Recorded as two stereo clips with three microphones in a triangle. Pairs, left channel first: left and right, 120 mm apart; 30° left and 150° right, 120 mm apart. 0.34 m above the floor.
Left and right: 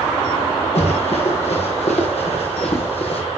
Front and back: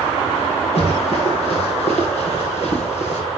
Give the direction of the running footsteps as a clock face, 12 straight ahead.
10 o'clock.